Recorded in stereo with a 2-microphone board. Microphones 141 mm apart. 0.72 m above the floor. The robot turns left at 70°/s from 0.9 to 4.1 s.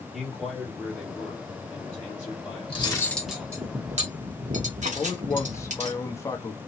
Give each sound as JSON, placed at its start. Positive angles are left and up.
{"t": 0.1, "sound": "a man speaking", "azimuth_deg": 175, "distance_m": 1.7}
{"t": 2.7, "sound": "cutlery clinking", "azimuth_deg": 40, "distance_m": 0.9}
{"t": 5.0, "sound": "a man speaking", "side_deg": 20, "distance_m": 0.6}